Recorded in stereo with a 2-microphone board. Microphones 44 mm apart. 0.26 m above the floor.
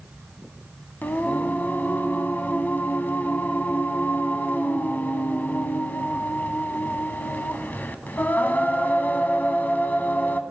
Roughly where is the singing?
Left.